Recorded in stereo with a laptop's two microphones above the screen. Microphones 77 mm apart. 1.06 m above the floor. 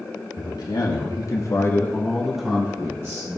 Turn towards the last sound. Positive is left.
turn(degrees=-40)  # may be behind; listen again after turning